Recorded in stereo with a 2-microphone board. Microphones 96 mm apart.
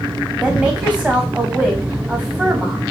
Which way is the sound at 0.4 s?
10° right (ahead or behind).